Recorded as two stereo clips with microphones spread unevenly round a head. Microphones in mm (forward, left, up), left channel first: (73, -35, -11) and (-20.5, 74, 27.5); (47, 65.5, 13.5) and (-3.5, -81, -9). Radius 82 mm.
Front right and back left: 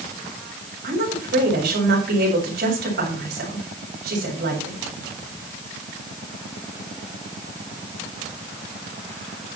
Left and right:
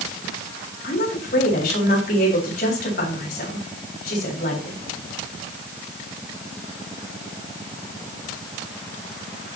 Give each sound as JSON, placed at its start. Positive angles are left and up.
{"t": 0.8, "sound": "a woman speaking", "azimuth_deg": 110, "distance_m": 7.5}